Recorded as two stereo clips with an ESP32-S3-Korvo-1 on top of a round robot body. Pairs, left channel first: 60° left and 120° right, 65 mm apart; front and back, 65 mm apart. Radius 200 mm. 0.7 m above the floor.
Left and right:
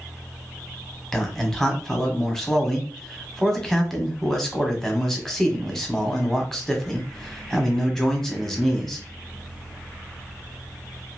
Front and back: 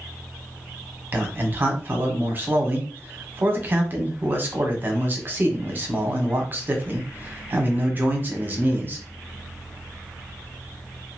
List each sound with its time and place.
1.1 s a man speaking: 140° left, 1.2 m